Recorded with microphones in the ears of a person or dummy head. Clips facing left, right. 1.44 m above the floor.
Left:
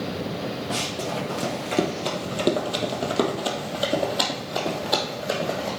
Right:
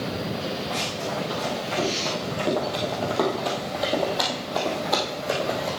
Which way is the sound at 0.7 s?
35° left (ahead or behind).